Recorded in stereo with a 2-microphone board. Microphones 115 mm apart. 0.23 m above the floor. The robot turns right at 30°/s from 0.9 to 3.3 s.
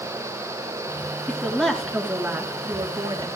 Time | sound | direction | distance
1.3 | a woman speaking | 165° left | 3 m